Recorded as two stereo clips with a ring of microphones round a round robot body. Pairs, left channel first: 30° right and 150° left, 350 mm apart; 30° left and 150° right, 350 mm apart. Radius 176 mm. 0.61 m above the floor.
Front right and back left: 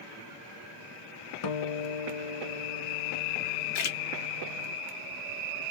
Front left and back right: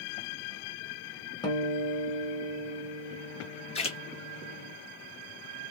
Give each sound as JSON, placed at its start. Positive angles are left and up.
{"t": 1.4, "sound": "a guitar", "azimuth_deg": -45, "distance_m": 0.5}
{"t": 3.8, "sound": "a splash", "azimuth_deg": -45, "distance_m": 0.7}